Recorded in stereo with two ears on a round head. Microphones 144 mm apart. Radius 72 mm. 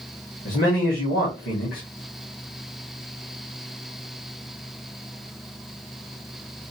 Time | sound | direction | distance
0.5 | a man speaking | 65° left (ahead or behind) | 1.7 m